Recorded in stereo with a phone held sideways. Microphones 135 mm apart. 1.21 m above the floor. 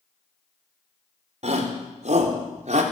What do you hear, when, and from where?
1.4 s a shout: 55° right (ahead or behind), 5 m; by 2.8 s 60° right (ahead or behind), 4 m